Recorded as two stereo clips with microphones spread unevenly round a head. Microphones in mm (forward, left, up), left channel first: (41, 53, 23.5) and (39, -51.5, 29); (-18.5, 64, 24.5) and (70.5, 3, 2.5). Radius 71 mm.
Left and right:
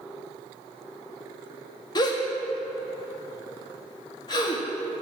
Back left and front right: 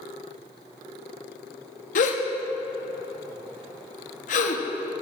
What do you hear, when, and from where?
1.9 s a gasp: 145° left, 1.1 m